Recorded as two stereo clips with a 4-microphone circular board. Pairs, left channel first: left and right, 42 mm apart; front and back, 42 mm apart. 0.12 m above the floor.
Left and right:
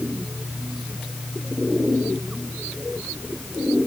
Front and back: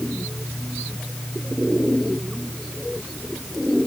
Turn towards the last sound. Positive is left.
No sound to turn to.